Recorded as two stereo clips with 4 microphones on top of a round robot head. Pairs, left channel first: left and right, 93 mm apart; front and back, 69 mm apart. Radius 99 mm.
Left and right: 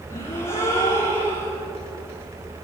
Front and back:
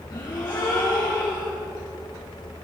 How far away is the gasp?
About 9.5 m.